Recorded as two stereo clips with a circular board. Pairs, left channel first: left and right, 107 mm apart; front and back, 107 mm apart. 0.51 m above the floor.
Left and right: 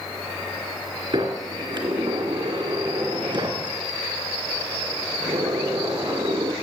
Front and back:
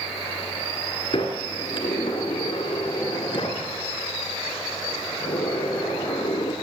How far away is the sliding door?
About 1.9 m.